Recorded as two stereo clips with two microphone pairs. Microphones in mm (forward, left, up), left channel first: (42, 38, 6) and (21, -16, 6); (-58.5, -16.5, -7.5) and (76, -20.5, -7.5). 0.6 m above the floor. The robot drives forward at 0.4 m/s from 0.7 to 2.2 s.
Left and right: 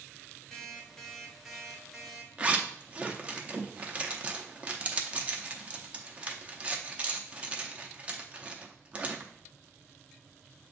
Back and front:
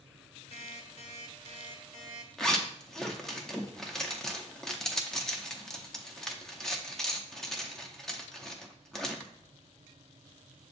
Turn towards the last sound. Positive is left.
turn(degrees=-100)